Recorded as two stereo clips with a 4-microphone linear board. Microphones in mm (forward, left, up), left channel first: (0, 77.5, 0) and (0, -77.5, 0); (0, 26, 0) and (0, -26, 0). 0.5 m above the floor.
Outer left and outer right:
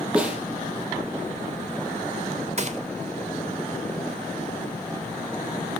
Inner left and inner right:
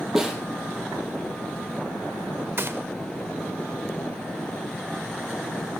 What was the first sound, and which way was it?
A snare drum, 5° right (ahead or behind).